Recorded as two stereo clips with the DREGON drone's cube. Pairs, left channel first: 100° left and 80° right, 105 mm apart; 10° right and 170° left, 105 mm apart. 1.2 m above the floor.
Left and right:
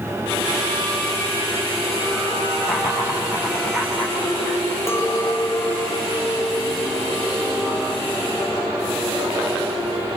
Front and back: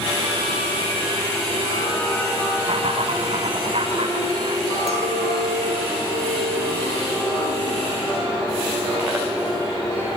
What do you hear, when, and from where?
2.6 s laughter: 150° right, 5.5 m
4.9 s a clink: 165° left, 2 m